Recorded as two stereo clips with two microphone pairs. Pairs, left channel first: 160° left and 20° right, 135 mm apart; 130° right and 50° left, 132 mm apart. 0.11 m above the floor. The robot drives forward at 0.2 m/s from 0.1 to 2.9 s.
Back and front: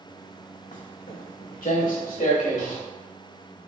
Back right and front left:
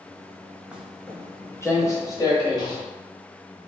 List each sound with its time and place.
0.7 s footsteps: 135° left, 0.8 m; by 2.8 s 175° left, 2 m